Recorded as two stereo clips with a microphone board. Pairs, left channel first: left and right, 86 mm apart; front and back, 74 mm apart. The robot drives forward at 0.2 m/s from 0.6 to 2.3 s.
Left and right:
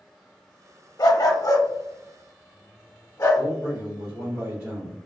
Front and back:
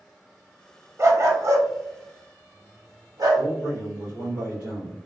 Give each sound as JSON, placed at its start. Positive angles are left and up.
{"t": 1.0, "sound": "a dog barking", "azimuth_deg": 130, "distance_m": 0.5}
{"t": 3.4, "sound": "a man speaking", "azimuth_deg": -140, "distance_m": 1.7}